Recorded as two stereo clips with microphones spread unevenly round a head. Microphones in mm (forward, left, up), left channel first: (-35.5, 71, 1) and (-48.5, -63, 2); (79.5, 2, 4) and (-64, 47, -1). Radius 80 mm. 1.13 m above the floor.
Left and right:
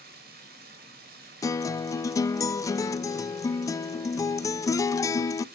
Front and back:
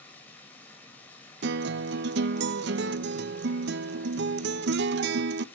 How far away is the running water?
About 3 m.